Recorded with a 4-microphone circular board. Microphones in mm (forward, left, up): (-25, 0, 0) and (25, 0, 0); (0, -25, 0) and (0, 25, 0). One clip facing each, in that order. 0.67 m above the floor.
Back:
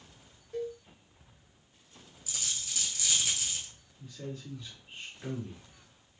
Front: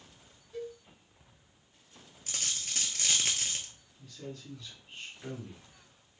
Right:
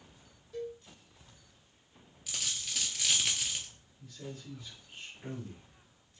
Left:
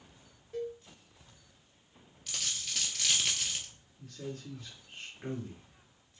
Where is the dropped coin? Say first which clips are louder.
Front 1 dB, even; 5° right, 0.9 m.